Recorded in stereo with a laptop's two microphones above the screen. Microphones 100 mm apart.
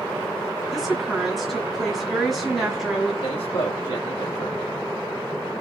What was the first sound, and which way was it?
A woman speaking, centre (ahead or behind).